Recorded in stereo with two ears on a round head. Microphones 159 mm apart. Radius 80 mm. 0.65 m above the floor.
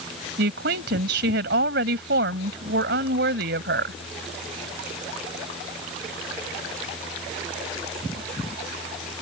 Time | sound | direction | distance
0.4 | a woman speaking | 70° right (ahead or behind) | ?